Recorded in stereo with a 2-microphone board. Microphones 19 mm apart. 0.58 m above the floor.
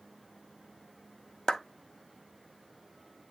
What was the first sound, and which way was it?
A clap, 40° left (ahead or behind).